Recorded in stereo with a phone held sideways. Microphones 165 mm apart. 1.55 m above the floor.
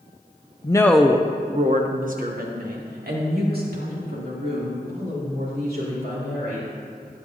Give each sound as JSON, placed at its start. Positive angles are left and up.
{"t": 0.6, "sound": "a woman speaking", "side_deg": 30, "distance_m": 0.6}